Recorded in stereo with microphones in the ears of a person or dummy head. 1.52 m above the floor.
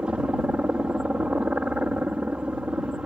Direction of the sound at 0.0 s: 5° right (ahead or behind).